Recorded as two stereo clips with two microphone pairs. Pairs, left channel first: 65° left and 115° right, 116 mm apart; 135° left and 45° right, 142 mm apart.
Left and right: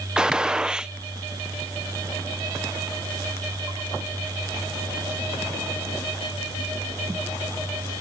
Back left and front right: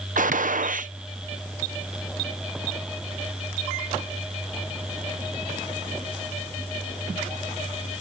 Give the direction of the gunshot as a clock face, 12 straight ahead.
1 o'clock.